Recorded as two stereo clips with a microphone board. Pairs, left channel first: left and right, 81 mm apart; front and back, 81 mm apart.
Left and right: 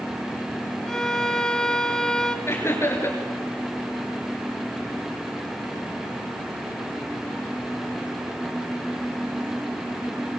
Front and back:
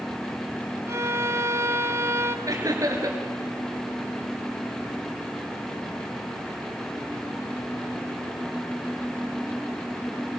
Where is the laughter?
140° left, 3 m.